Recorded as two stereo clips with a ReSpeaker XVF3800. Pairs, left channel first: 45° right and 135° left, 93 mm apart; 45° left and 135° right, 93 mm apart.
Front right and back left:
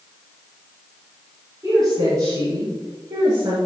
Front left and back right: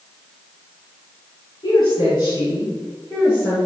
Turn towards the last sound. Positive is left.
turn(degrees=95)